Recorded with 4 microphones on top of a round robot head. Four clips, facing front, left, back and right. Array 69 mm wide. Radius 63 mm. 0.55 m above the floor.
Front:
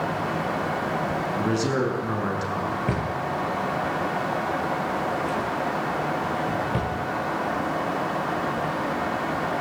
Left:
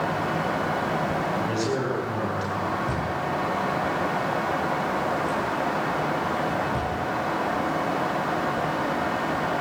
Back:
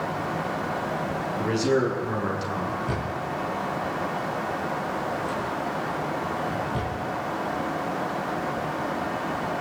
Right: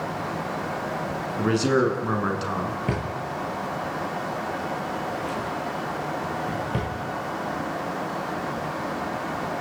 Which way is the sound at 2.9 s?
45° right.